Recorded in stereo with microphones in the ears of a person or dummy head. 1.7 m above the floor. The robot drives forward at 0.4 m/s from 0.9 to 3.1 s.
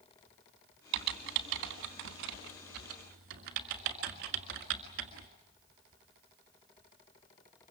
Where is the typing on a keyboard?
55° right (ahead or behind), 1.5 m; by 5.3 s 45° right (ahead or behind), 1.7 m.